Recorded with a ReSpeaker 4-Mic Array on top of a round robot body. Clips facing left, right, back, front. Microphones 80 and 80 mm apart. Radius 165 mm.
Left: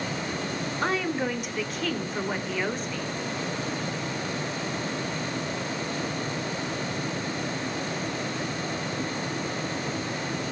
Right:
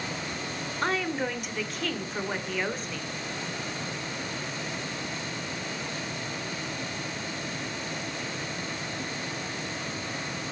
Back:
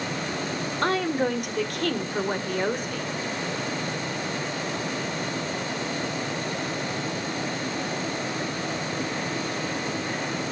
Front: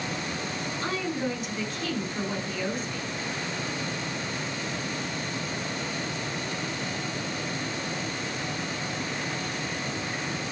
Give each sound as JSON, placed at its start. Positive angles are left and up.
{"t": 0.8, "sound": "a woman speaking", "azimuth_deg": 180, "distance_m": 2.5}